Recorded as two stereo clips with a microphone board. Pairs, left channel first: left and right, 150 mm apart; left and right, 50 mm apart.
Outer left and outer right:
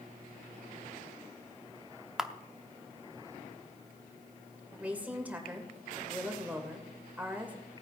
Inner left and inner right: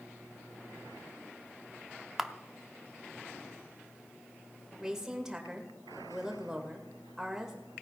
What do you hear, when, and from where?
2.2 s a camera shutter: 5° right (ahead or behind), 0.7 m
4.8 s a woman speaking: 10° right (ahead or behind), 2.5 m